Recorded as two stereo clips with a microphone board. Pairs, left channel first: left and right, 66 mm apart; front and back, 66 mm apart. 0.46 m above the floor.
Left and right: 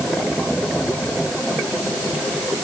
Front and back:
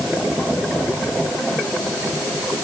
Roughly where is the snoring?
No snoring in this recording.